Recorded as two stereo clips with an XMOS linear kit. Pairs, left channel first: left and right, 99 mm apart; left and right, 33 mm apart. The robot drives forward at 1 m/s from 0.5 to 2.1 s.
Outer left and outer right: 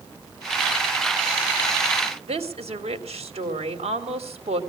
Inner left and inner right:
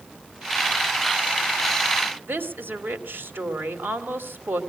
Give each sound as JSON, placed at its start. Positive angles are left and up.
{"t": 2.3, "sound": "a woman speaking", "side_deg": -90, "distance_m": 2.5}